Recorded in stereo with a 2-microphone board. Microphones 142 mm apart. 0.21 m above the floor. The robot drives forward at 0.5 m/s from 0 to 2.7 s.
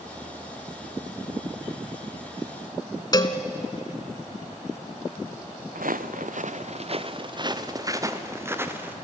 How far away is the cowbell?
About 1.0 m.